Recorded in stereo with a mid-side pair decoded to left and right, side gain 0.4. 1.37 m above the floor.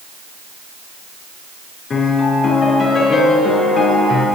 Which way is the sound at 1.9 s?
60° left.